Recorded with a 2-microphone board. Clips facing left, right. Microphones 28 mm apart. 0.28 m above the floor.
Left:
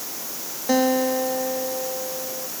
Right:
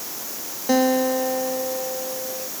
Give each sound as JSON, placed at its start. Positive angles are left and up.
{"t": 0.7, "sound": "a guitar", "side_deg": 0}